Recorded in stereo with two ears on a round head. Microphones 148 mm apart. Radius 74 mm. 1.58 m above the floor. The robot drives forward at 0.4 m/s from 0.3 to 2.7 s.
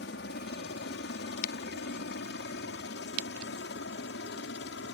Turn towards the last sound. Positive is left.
turn(degrees=75)  # may be behind; listen again after turning